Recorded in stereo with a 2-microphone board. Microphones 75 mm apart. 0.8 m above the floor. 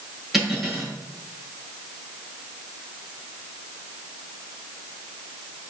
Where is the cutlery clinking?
5° right (ahead or behind), 7 m.